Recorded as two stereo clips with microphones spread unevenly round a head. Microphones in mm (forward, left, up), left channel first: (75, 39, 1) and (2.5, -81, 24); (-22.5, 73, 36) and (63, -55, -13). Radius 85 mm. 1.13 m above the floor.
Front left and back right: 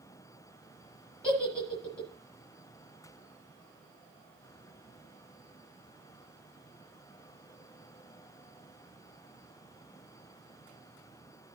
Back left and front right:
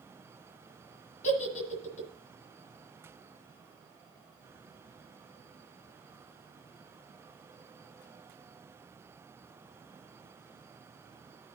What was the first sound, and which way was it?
A giggle, 150° left.